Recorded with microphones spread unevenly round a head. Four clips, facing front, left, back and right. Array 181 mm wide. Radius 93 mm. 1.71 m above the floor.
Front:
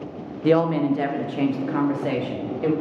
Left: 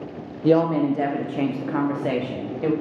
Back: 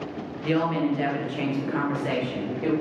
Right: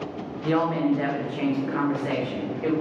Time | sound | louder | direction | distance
0.4 | a woman speaking | left 4 dB, front 5 dB | 55° left | 0.6 m